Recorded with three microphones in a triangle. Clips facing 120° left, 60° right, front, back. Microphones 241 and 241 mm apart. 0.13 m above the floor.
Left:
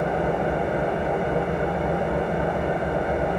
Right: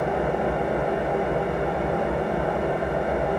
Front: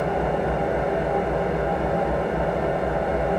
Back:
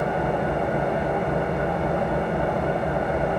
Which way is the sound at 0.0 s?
175° right.